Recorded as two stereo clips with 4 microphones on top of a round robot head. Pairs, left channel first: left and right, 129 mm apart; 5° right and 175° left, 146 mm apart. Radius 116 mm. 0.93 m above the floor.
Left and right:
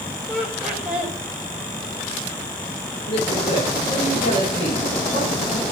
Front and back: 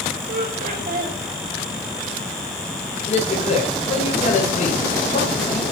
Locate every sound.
0.3 s laughter: 170° right, 5 m
2.9 s a man speaking: 35° left, 4.5 m